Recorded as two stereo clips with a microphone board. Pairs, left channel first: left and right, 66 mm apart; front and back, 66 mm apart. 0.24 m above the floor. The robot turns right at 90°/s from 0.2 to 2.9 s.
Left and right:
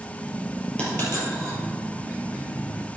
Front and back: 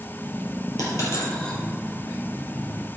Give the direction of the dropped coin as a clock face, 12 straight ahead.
11 o'clock.